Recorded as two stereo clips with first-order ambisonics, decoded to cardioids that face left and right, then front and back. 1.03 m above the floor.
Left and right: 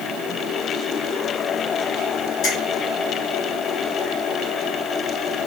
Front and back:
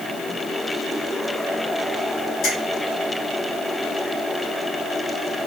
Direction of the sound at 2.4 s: 40° left.